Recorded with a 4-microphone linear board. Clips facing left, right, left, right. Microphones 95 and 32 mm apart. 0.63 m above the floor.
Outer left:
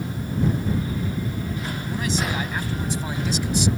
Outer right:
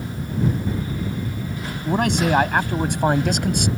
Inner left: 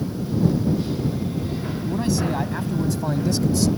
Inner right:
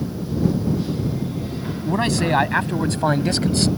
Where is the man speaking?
65° right (ahead or behind); by 3.7 s 60° right (ahead or behind).